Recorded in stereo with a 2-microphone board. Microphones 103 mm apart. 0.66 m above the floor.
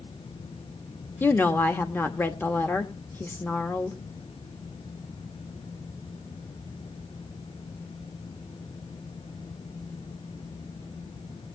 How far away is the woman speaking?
About 1.1 m.